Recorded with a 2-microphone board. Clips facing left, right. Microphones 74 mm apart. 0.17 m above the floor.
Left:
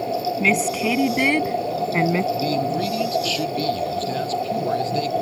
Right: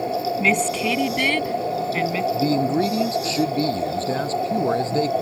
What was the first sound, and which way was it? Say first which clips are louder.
A woman speaking: left 1 dB; centre (ahead or behind).